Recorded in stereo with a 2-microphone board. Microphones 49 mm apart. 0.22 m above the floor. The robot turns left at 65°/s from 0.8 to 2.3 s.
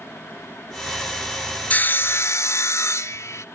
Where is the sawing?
150° left, 0.6 m; by 3.5 s 110° left, 0.6 m.